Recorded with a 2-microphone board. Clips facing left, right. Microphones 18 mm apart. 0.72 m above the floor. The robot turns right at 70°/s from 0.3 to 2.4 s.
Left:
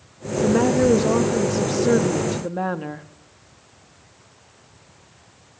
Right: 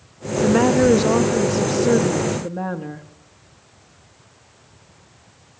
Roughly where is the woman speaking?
Right.